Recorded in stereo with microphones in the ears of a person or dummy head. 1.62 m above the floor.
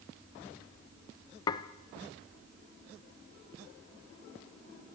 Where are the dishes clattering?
20° left (ahead or behind), 0.8 m.